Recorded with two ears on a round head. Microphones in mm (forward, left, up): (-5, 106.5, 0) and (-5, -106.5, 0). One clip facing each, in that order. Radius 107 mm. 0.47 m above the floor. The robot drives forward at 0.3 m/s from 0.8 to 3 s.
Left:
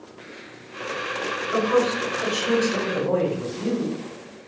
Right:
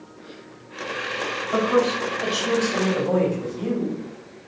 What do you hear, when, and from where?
1.5 s a man speaking: 5° left (ahead or behind), 1.8 m